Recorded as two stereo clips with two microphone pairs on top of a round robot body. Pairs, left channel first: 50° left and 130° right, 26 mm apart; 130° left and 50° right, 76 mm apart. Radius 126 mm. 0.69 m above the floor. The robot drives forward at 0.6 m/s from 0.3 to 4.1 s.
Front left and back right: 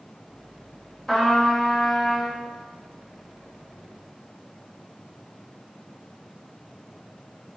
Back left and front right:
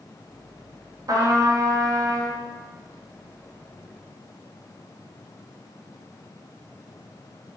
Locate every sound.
1.1 s a trumpet: 30° right, 1.7 m; by 2.4 s 60° right, 1.3 m